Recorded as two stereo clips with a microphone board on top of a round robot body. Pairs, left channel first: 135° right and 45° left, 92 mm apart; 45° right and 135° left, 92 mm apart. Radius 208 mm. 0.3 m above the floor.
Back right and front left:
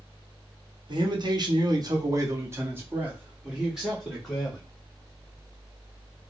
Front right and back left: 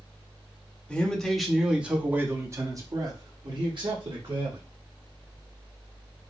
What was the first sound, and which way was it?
A man speaking, 30° left.